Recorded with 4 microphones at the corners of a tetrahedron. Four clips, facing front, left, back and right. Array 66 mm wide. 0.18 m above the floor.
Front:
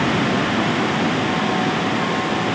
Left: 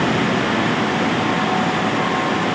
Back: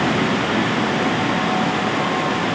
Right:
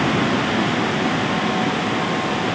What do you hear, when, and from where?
Only background noise.